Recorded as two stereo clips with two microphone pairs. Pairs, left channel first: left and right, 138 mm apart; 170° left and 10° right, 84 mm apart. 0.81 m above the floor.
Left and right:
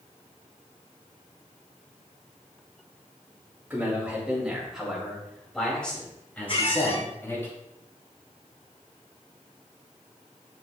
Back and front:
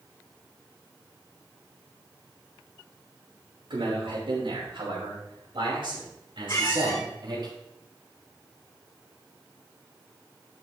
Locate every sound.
3.7 s a man speaking: 15° right, 4 m; by 7.5 s 15° left, 5 m
6.5 s a squeak: 130° left, 2.0 m